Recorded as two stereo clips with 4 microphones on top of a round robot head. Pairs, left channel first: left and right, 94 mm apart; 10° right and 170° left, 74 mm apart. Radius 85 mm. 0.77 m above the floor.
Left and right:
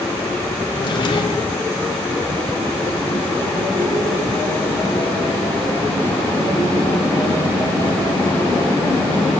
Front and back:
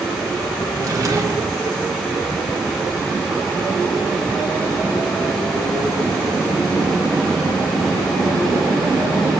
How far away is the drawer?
About 1.3 m.